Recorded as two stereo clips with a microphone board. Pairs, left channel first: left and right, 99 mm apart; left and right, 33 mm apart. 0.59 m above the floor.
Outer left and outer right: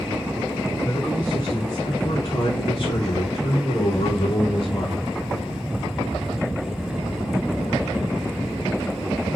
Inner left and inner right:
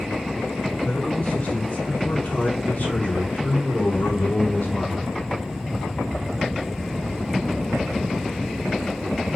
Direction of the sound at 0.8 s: 30° left (ahead or behind).